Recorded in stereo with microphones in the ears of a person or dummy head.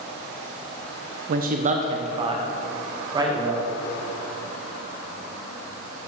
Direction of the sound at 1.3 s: 55° right (ahead or behind).